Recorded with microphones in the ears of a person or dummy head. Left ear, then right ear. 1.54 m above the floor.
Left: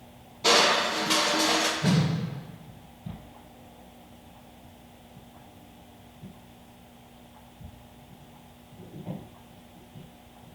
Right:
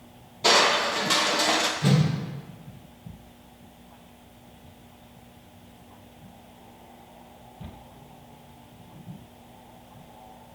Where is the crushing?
15° right (ahead or behind), 0.5 m.